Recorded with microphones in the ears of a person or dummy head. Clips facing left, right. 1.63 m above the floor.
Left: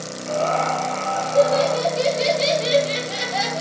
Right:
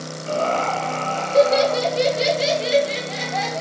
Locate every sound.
0.3 s laughter: 60° right (ahead or behind), 1.6 m; by 3.6 s 15° left (ahead or behind), 1.3 m